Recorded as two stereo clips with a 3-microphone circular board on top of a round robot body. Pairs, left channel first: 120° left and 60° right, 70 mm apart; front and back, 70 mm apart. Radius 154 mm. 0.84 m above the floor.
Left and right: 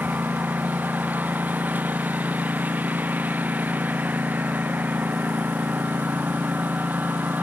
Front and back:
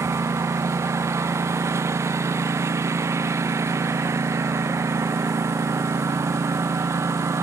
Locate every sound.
0.0 s a lawn mower: 130° right